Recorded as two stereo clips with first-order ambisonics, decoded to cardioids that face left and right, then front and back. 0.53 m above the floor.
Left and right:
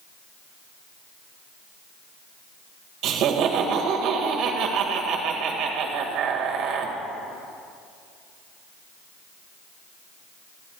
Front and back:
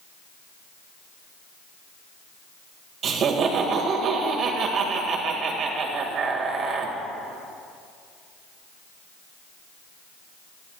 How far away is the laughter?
About 1.8 m.